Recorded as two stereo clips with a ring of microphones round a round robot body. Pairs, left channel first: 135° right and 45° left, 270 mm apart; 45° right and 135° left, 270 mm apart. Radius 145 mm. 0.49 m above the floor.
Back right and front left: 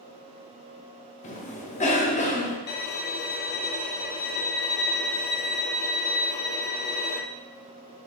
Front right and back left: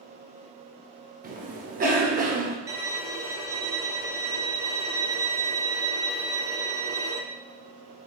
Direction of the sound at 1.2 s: 175° left.